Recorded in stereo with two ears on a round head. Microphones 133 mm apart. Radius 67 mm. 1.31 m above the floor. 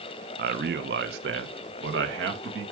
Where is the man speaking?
65° right (ahead or behind), 0.7 m; by 2.7 s 85° right, 1.8 m.